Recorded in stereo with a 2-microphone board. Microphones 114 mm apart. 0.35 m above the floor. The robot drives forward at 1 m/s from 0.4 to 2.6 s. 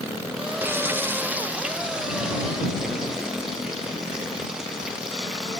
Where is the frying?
20° right (ahead or behind), 0.6 m; by 5.6 s 5° right (ahead or behind), 1.8 m.